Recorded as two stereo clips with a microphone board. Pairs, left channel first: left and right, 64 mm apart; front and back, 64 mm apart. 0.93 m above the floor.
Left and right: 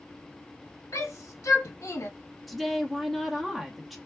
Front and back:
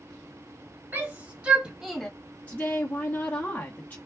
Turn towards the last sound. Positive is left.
turn(degrees=-5)